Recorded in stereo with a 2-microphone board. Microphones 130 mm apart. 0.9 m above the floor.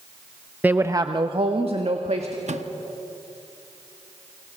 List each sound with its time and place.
0.6 s a woman speaking: 15° right (ahead or behind), 0.7 m; by 2.4 s 60° right (ahead or behind), 1.8 m
2.5 s a microwave: 70° right (ahead or behind), 1.1 m